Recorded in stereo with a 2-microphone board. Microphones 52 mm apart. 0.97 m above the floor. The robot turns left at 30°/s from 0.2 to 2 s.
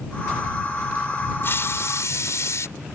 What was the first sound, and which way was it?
A hiss, 45° left (ahead or behind).